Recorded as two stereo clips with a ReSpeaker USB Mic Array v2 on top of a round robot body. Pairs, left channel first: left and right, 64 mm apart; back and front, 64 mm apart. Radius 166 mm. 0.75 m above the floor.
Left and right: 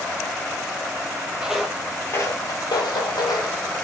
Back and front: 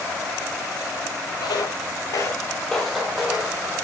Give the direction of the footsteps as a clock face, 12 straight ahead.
6 o'clock.